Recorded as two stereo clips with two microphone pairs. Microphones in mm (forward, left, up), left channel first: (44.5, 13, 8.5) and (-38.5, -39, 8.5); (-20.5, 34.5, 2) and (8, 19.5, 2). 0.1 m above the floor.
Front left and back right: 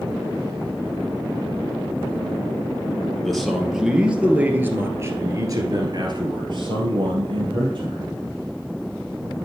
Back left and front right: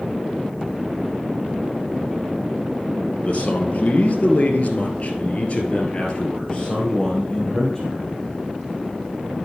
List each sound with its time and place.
3.2 s a man speaking: 120° left, 2.0 m; by 8.1 s 135° right, 2.5 m